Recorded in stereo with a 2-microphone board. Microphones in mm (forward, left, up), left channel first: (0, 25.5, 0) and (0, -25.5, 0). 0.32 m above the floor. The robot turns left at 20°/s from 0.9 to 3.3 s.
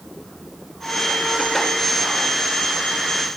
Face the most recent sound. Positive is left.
No sound to turn to.